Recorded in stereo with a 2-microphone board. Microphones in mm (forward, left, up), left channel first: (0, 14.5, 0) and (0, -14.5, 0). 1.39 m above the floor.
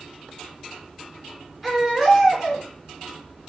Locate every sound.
1.6 s a baby crying: 5° right (ahead or behind), 3.5 m